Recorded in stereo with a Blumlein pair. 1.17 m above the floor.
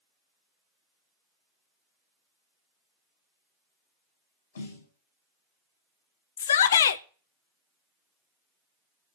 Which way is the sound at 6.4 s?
65° left.